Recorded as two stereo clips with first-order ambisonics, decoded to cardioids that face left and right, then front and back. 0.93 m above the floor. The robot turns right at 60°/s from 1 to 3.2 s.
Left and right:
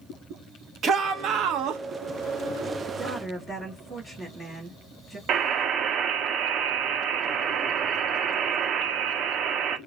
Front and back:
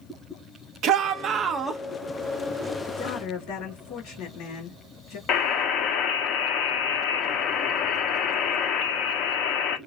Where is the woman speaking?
25° right, 2.5 m; by 5.2 s 5° right, 2.5 m.